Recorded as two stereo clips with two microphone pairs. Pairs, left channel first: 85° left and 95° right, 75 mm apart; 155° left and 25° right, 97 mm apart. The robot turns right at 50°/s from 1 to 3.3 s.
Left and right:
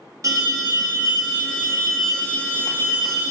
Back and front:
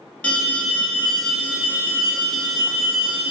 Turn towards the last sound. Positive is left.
turn(degrees=-15)